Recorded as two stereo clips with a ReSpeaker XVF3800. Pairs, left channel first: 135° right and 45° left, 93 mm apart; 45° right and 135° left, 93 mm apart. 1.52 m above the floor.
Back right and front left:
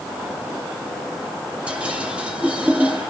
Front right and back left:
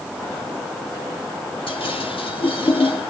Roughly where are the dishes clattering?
Ahead right.